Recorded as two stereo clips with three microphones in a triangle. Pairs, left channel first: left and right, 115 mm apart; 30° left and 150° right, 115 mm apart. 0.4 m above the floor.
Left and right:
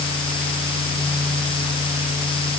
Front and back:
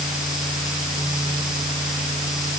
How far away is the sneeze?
I don't hear a sneeze.